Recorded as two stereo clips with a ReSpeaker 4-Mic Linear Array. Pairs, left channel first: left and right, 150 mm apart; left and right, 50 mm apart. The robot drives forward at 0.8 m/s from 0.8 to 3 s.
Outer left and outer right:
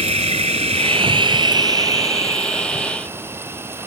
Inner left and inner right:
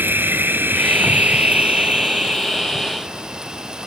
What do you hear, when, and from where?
0.0 s an insect: 45° right (ahead or behind); by 3.9 s 15° right (ahead or behind)